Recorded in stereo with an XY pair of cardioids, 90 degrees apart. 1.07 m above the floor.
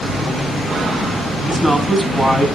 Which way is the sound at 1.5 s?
15° right.